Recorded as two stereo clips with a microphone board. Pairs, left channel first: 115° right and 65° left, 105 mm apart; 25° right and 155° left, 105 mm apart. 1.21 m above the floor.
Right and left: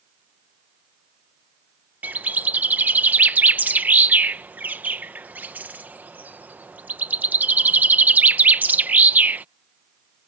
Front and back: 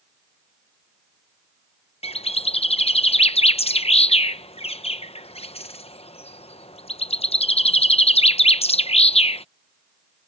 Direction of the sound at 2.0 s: 5° right.